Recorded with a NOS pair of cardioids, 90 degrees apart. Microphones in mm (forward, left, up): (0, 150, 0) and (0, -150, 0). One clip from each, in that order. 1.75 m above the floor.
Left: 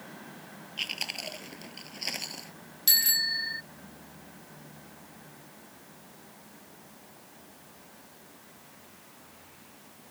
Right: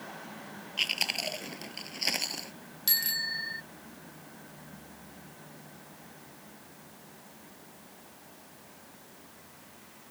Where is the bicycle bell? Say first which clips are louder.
Left 5 dB; 20° left.